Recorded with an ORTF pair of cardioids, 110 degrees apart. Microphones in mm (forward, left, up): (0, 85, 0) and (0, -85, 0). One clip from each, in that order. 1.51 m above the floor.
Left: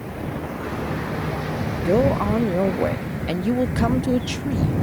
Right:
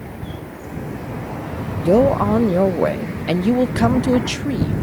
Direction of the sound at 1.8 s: 20° right.